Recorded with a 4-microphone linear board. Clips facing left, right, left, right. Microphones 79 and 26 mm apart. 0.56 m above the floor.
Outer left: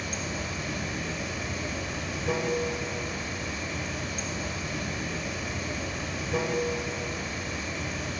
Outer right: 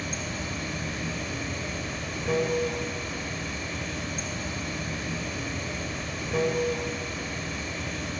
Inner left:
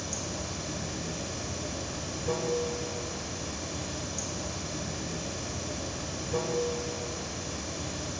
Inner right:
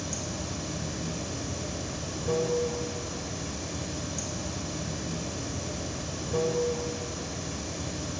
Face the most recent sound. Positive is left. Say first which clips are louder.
# even, inner right 1 dB
turn(degrees=0)  # may be behind; listen again after turning